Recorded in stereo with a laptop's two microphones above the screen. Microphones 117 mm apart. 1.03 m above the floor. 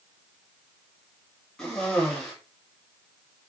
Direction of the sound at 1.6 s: 5° left (ahead or behind).